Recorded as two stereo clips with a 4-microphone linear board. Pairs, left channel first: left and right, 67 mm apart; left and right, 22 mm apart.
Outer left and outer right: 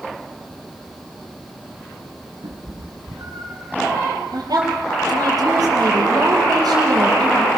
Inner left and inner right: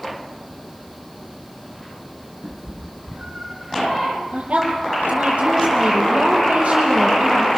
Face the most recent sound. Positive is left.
turn(degrees=-70)  # may be behind; listen again after turning